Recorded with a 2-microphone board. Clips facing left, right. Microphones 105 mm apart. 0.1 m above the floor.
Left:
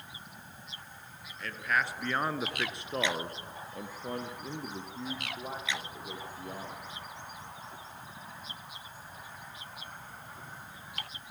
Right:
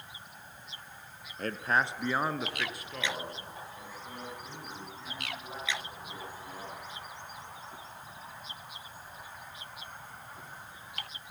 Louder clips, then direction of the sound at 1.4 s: Right 2 dB; 45° right (ahead or behind).